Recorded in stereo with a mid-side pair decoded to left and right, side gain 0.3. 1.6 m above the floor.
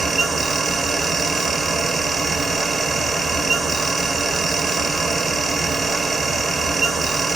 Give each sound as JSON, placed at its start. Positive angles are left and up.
{"t": 0.0, "sound": "a fan", "azimuth_deg": -65, "distance_m": 1.2}